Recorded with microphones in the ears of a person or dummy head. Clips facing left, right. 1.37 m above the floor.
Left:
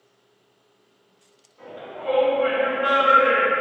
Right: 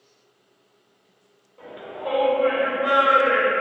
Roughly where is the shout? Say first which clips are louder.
Right 2 dB; right.